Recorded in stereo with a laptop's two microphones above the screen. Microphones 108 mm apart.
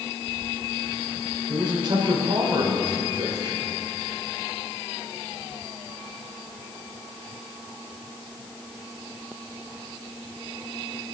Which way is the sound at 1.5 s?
45° right (ahead or behind).